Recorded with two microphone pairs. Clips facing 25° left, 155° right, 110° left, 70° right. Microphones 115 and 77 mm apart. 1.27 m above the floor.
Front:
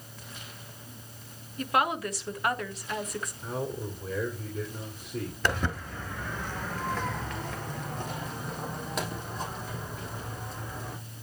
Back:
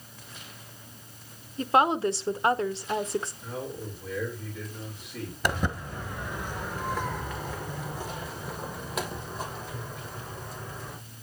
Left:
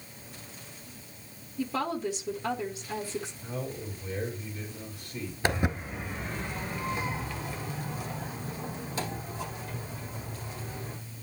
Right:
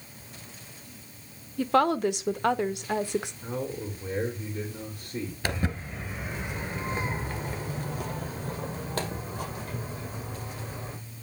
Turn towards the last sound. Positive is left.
turn(degrees=-65)